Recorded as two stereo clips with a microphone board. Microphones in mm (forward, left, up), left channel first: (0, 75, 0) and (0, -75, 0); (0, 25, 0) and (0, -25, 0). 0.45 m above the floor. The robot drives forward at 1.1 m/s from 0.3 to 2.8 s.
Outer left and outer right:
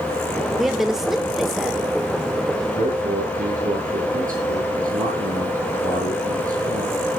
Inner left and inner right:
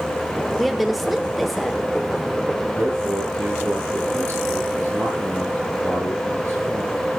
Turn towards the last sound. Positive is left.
turn(degrees=-65)  # may be behind; listen again after turning